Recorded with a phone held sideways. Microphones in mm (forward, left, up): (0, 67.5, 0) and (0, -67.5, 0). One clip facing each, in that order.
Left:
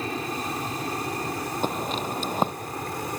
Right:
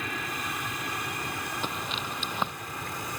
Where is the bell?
No bell in this recording.